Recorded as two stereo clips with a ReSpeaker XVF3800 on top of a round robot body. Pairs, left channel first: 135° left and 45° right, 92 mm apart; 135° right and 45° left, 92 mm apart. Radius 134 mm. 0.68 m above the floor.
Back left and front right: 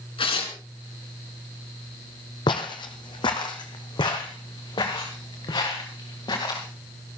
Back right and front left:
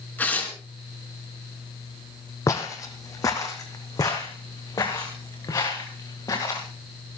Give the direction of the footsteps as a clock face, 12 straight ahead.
6 o'clock.